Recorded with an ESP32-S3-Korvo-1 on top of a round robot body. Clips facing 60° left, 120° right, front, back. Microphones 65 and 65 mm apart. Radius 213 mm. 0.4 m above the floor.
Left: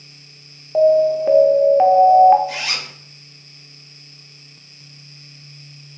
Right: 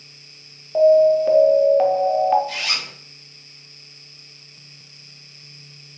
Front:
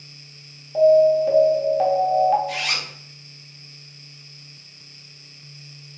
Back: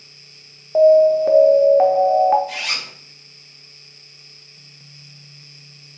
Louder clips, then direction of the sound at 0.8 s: Right 1 dB, back 3 dB; 135° left.